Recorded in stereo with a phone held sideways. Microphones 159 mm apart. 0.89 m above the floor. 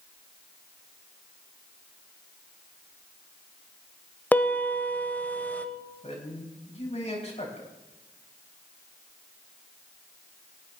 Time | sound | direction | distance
4.3 | a piano | 10° left (ahead or behind) | 1.0 m
6.0 | a man speaking | 45° left (ahead or behind) | 4.5 m